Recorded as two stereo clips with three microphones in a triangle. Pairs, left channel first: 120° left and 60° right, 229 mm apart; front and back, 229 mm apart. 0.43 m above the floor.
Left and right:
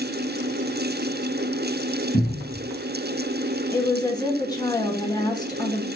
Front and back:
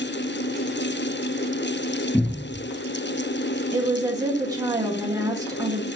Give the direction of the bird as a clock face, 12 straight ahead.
I don't hear a bird.